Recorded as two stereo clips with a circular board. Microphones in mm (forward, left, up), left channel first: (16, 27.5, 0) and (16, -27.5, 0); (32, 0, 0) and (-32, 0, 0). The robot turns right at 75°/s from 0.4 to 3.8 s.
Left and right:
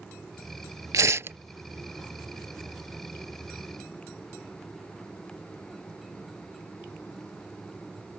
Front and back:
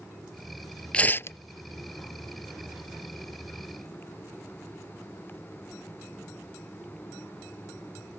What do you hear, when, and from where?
0.9 s tearing paper: 70° right; by 1.4 s 40° right